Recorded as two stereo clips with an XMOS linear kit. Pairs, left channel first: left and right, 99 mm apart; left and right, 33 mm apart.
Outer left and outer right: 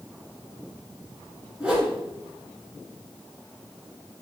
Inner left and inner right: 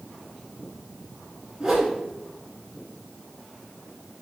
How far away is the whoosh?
About 1.6 m.